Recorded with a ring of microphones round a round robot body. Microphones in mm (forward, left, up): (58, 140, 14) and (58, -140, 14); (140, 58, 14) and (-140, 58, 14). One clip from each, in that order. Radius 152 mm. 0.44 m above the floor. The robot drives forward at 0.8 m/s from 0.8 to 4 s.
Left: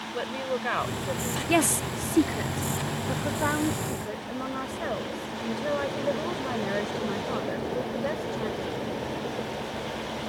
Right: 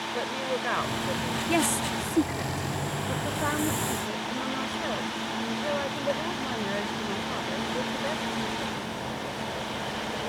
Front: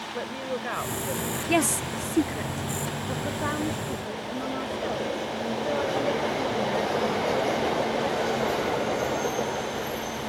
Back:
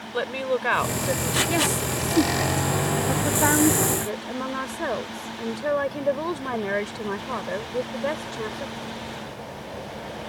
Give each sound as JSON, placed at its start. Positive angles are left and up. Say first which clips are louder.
{"t": 0.1, "sound": "a woman speaking", "louder": "left 1 dB, back 9 dB", "azimuth_deg": 180}
{"t": 1.5, "sound": "a woman speaking", "louder": "left 2 dB, back 1 dB", "azimuth_deg": 20}